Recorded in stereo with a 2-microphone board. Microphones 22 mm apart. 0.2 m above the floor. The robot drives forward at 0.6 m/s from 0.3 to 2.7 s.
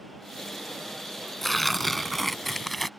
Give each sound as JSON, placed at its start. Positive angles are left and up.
{"t": 1.4, "sound": "tearing paper", "side_deg": 0}